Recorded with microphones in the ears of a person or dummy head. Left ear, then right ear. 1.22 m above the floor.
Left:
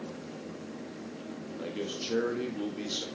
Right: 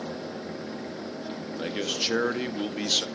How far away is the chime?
No chime in this recording.